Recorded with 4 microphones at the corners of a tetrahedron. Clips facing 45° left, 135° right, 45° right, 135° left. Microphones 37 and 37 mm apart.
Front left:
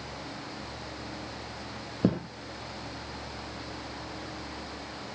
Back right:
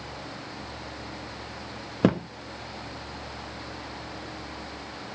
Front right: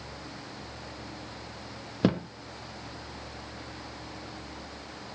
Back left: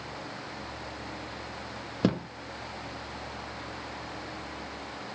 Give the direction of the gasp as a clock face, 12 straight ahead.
I don't hear a gasp.